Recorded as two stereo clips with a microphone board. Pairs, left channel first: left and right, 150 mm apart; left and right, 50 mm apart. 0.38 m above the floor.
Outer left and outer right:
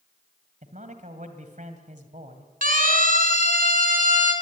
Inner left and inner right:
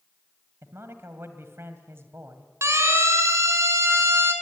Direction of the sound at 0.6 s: 60° right (ahead or behind).